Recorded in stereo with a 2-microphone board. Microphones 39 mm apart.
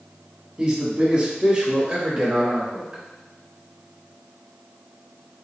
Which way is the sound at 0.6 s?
25° right (ahead or behind).